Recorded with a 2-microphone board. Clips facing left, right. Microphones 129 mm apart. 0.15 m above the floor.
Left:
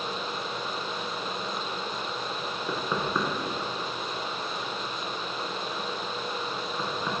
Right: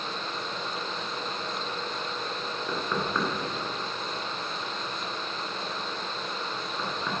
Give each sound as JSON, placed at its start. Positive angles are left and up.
{"t": 2.7, "sound": "knocking", "side_deg": 10, "distance_m": 1.4}